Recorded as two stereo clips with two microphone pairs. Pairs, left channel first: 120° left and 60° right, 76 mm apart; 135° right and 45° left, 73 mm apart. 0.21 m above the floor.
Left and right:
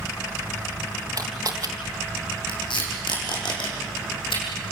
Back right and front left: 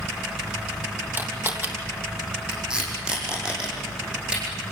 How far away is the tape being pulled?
About 6 m.